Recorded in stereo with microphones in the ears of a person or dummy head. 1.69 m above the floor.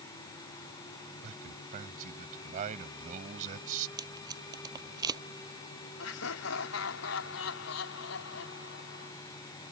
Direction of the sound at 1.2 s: 40° right (ahead or behind).